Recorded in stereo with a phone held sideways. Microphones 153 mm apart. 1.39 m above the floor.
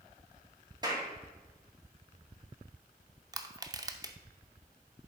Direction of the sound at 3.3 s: 25° right (ahead or behind).